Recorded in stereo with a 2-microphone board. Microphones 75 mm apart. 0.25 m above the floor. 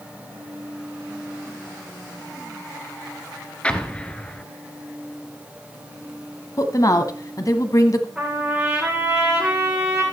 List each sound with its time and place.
3.6 s an explosion: 15° left (ahead or behind), 1.0 m
6.6 s a woman speaking: 50° left (ahead or behind), 1.4 m
8.2 s a trumpet: 10° right (ahead or behind), 9.5 m